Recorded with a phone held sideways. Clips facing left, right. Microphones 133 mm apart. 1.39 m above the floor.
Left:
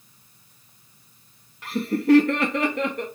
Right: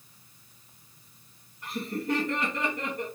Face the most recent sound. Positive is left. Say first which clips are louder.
# left 10 dB
turn(degrees=85)